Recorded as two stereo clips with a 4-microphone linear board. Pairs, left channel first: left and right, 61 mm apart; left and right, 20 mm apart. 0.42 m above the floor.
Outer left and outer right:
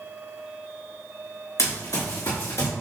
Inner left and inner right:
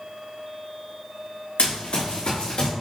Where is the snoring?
I don't hear snoring.